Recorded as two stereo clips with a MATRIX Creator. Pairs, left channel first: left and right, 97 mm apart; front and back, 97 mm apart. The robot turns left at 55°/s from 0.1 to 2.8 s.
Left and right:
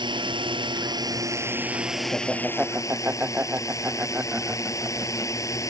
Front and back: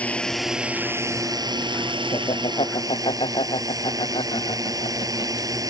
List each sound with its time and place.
0.0 s a drone: 75° right; by 5.7 s 140° left
2.1 s laughter: 20° left; by 5.7 s 20° right